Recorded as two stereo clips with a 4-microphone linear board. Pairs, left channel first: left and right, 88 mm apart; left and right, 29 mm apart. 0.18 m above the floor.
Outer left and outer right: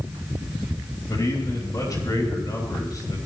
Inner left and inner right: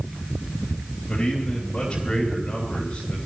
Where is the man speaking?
40° left (ahead or behind), 3.5 m.